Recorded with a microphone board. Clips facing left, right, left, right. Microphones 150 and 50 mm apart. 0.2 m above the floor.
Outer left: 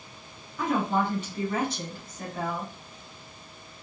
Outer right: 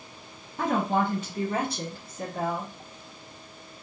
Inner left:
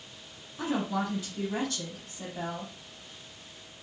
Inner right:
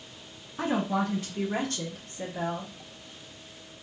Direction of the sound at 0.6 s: 45° right (ahead or behind).